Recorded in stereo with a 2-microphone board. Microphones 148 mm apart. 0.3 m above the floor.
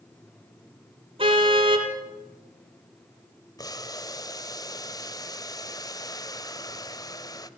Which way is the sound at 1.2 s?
40° right (ahead or behind).